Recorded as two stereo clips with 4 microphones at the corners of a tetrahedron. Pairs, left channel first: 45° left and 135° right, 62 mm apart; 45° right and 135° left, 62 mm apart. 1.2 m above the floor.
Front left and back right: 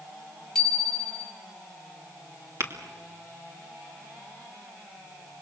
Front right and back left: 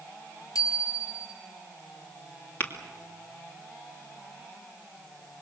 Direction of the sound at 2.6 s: 95° right.